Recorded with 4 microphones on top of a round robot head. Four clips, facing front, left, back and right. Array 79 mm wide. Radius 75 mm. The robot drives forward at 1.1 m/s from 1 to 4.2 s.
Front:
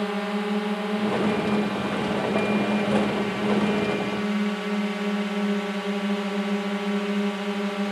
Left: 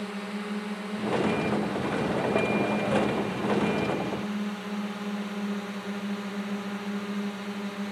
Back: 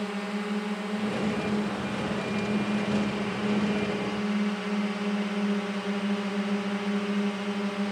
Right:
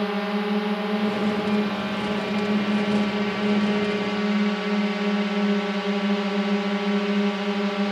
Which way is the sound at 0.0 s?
55° right.